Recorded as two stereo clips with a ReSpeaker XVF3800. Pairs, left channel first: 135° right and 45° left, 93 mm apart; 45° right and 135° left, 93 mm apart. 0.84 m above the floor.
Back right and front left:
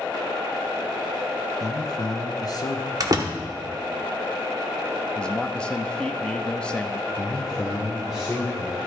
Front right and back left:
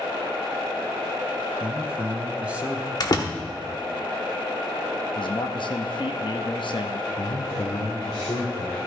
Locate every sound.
1.6 s a man speaking: 155° right, 0.8 m
3.0 s a door slam: straight ahead, 1.1 m
5.2 s a man speaking: 60° right, 0.8 m
7.2 s a man speaking: 40° right, 2.5 m